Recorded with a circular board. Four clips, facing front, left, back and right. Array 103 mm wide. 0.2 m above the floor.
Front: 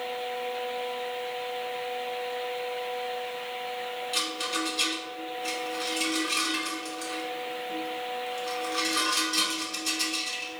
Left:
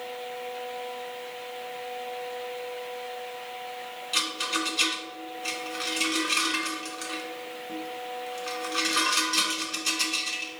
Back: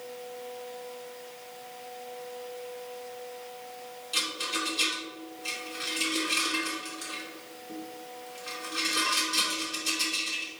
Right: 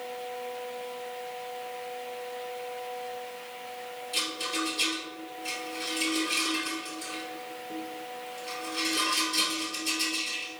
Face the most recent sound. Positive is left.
turn(degrees=90)